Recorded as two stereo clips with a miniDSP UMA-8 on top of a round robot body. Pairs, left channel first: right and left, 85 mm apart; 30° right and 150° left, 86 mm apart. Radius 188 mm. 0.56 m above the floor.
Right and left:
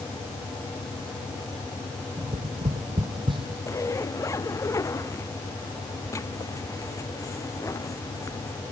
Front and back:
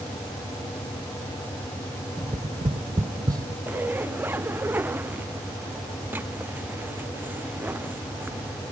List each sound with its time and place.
2.2 s tapping: 105° left
3.7 s a zipper: 145° right